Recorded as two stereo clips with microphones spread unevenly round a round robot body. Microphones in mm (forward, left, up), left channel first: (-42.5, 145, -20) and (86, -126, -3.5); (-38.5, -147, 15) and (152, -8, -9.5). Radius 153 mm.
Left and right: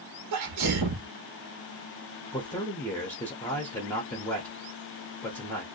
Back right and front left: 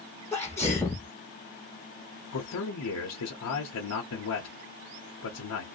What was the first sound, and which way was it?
A sneeze, 60° right.